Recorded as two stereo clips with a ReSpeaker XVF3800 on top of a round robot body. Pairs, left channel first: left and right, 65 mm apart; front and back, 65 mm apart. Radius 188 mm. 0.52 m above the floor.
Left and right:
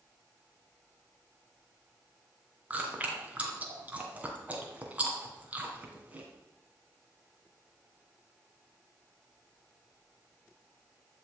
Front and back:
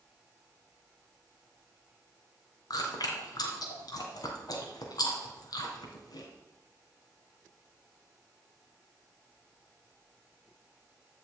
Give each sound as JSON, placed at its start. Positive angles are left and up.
{"t": 2.7, "sound": "chewing", "azimuth_deg": -20, "distance_m": 2.0}